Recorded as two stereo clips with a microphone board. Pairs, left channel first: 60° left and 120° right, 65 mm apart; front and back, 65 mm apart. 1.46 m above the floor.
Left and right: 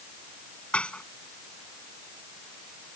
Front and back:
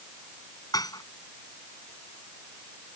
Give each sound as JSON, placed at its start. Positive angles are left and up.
{"t": 0.7, "sound": "dishes clattering", "azimuth_deg": -15}